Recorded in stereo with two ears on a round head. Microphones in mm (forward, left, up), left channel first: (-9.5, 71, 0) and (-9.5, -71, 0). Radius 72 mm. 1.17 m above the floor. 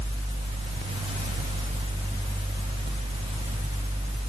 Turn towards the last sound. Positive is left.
No sound to turn to.